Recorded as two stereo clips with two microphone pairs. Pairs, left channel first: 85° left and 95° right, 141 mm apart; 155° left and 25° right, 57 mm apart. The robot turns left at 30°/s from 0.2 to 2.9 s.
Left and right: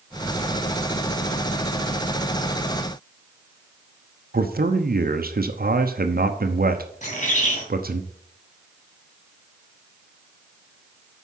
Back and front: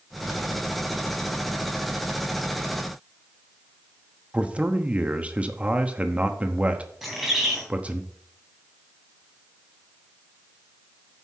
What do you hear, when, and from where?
4.3 s a man speaking: 90° right, 0.9 m
7.0 s a bird: 65° left, 2.5 m